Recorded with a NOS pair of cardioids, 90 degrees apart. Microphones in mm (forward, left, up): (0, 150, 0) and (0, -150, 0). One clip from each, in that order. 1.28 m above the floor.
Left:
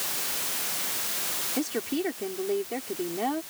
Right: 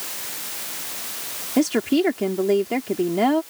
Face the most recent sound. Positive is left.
turn(degrees=-70)